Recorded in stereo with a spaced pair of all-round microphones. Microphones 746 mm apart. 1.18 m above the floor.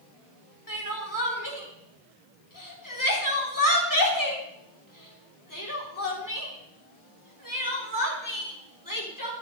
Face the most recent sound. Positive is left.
turn(degrees=25)  # may be behind; listen again after turning